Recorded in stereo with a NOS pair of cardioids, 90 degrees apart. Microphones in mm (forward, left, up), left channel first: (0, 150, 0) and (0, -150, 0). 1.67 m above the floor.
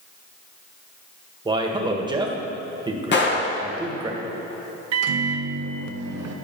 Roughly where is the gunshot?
Ahead left.